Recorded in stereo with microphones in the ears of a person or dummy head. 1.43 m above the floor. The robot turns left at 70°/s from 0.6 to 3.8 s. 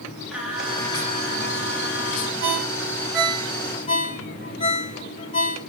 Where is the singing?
175° right, 1.4 m; by 2.3 s 65° left, 1.4 m.